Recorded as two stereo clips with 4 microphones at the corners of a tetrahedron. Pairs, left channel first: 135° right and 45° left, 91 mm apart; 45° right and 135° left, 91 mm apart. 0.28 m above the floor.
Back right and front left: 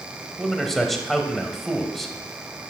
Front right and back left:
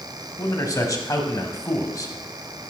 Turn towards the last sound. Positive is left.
turn(degrees=-50)